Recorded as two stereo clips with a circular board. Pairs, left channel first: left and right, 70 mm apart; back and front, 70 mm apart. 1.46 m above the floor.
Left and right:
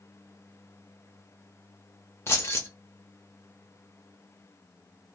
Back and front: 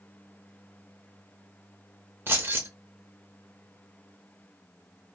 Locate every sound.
2.3 s keys jangling: 50° left, 0.7 m